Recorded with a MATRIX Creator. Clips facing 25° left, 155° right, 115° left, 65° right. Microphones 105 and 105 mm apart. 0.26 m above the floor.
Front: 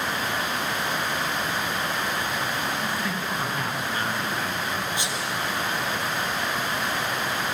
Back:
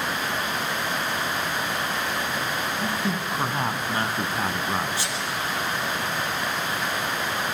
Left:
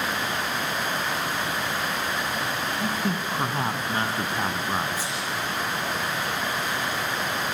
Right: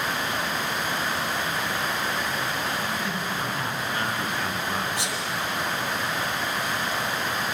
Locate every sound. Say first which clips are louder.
2.8 s a man speaking: back 2 dB, left 2 dB; 140° left, 2 m; by 5.0 s 175° left, 2.5 m
5.0 s a sneeze: even, right 1 dB; 50° right, 6 m